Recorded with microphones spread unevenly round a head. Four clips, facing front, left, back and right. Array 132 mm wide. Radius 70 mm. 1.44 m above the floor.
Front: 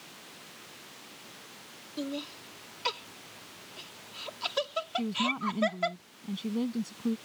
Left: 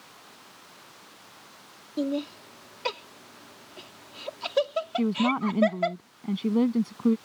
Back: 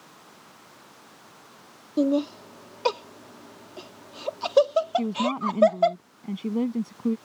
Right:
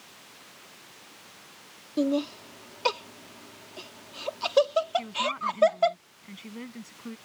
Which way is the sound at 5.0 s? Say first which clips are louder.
Left 4 dB, back 6 dB; 115° left.